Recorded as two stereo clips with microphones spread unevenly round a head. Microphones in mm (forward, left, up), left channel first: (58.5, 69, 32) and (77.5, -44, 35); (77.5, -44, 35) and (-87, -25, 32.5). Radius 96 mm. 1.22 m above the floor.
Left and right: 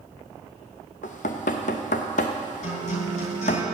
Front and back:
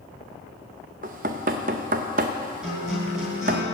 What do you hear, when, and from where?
1.0 s knocking: 125° left, 0.6 m
2.6 s a guitar: 85° left, 3.5 m